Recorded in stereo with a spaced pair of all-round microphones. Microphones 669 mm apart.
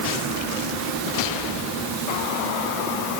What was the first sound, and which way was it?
Only background noise.